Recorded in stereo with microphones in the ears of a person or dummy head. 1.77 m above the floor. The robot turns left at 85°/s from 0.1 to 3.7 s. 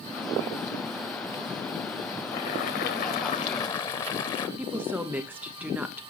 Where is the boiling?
155° left, 0.9 m; by 4.5 s 40° left, 0.9 m.